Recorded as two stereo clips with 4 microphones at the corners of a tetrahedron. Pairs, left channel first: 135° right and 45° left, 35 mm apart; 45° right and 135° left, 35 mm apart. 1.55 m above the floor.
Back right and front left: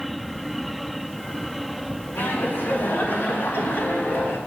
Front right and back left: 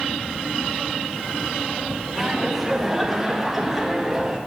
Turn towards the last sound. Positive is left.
turn(degrees=-140)